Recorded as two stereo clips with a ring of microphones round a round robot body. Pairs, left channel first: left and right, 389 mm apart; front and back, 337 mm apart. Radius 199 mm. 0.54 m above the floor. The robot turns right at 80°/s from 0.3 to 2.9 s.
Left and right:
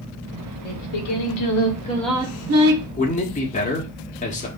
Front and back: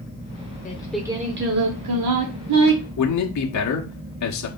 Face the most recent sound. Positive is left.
turn(degrees=20)